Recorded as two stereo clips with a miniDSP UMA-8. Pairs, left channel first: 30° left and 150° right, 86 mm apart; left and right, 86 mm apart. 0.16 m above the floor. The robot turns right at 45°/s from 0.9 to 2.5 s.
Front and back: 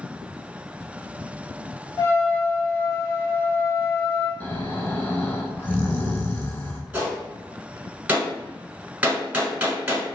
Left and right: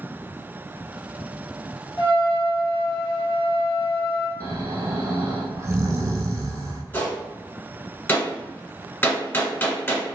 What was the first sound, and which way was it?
A trumpet, 70° left.